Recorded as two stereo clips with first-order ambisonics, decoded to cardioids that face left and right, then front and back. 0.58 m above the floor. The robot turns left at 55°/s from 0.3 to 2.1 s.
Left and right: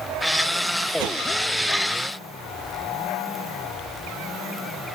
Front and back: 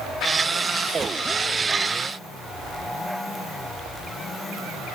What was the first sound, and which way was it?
A whoosh, 110° right.